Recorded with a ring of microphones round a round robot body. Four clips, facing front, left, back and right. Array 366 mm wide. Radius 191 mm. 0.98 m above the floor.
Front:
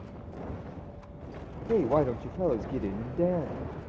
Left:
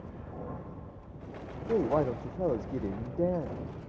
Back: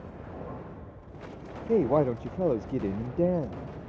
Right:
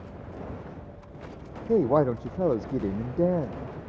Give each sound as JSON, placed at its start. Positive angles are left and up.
{"t": 1.7, "sound": "a woman speaking", "azimuth_deg": -120, "distance_m": 0.6}